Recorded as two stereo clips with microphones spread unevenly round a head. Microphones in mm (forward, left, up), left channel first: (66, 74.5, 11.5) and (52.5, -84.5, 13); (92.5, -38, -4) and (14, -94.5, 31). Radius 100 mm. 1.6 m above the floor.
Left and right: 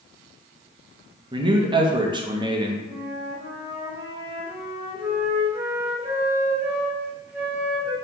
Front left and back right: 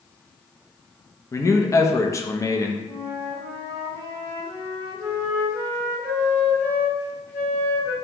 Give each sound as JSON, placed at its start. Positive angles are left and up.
{"t": 1.3, "sound": "a man speaking", "azimuth_deg": -35, "distance_m": 0.5}
{"t": 2.9, "sound": "a flute", "azimuth_deg": -30, "distance_m": 1.5}